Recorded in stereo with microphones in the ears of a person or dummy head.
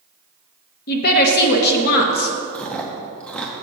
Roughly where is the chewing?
Centre.